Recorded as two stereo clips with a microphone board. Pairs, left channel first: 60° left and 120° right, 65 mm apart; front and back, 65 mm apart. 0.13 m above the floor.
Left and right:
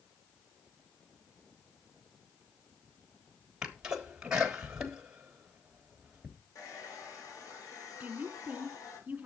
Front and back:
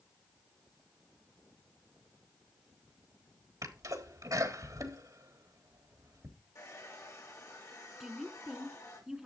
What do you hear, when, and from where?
3.6 s a sneeze: 160° left, 3.5 m
6.5 s a hair dryer: 30° left, 4.5 m
8.0 s a woman speaking: 110° right, 1.4 m